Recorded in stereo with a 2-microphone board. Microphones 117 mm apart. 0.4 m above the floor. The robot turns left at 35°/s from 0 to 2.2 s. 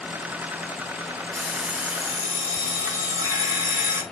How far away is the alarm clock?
About 1.9 m.